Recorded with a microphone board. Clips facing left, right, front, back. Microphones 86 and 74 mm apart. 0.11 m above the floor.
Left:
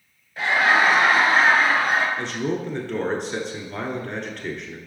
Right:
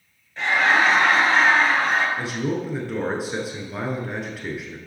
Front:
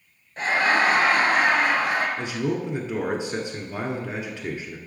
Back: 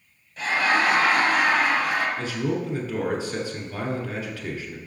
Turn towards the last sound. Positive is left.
turn(degrees=-20)